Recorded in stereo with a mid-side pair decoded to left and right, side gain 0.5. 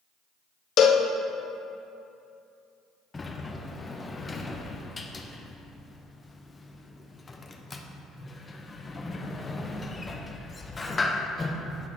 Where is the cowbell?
60° left, 0.6 m.